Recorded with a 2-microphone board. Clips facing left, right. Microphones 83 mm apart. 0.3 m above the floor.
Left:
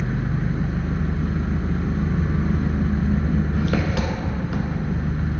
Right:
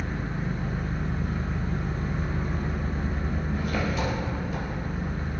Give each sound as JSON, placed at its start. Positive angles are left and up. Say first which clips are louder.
{"t": 0.0, "sound": "an engine running", "louder": "left 6 dB", "side_deg": 75, "distance_m": 1.3}